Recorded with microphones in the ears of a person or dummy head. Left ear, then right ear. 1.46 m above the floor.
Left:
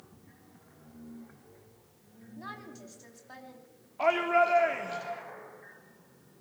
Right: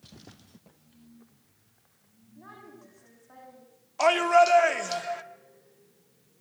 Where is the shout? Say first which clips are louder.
Right 5 dB; 80° right, 2.5 m.